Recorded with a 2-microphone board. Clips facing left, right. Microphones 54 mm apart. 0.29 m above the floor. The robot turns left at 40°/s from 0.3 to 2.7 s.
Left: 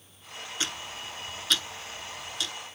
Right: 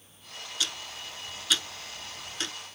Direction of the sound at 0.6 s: 35° left (ahead or behind).